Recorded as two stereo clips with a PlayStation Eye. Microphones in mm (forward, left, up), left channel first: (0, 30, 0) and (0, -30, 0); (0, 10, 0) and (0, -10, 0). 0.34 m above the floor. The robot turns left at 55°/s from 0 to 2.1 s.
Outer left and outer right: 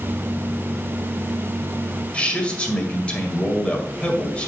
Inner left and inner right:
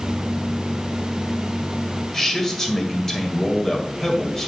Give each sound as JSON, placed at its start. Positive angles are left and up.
{"t": 2.1, "sound": "a man speaking", "side_deg": 20, "distance_m": 1.8}